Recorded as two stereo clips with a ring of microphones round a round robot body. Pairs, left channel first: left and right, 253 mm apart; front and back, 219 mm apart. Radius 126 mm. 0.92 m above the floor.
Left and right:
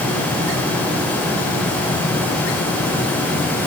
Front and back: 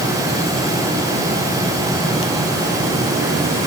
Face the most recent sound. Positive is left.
No sound to turn to.